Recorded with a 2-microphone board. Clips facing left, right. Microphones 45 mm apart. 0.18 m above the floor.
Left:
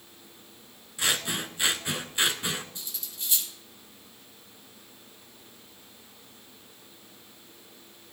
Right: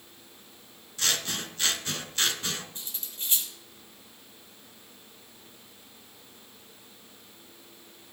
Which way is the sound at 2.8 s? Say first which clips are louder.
Even; 35° right (ahead or behind).